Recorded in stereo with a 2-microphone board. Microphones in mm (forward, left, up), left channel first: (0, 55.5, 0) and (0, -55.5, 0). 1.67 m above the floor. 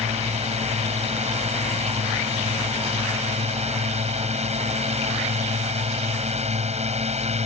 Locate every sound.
0.0 s a drone: 80° right